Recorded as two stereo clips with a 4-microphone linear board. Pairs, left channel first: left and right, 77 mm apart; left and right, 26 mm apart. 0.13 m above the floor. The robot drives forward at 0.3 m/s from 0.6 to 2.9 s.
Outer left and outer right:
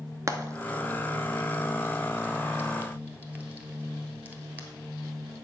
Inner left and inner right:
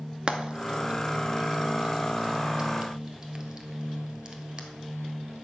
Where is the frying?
40° right (ahead or behind), 0.8 m; by 4.7 s 25° right (ahead or behind), 1.2 m.